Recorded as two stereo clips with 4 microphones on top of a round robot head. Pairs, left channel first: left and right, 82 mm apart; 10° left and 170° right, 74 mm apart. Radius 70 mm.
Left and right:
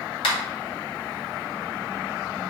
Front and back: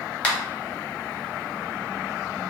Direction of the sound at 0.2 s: 80° left.